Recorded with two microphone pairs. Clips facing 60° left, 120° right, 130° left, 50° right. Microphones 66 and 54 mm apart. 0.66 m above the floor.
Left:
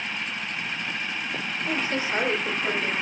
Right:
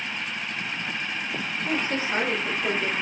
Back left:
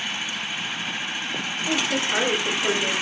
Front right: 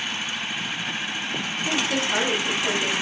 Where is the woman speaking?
110° right, 1.2 m; by 2.9 s 175° left, 1.6 m.